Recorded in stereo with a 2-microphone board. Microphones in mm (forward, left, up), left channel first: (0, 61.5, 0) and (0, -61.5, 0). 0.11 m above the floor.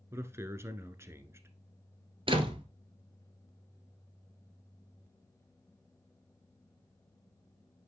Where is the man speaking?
20° right (ahead or behind), 1.1 m.